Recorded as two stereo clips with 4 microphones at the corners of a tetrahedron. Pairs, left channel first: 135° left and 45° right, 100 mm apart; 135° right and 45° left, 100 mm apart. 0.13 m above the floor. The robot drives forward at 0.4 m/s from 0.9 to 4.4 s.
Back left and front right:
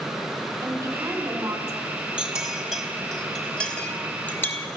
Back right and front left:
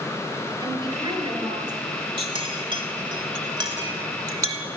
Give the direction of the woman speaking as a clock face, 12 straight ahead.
12 o'clock.